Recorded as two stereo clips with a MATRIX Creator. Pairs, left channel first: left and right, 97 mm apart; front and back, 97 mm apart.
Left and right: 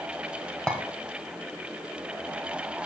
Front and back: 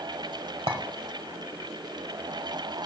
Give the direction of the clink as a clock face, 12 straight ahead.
6 o'clock.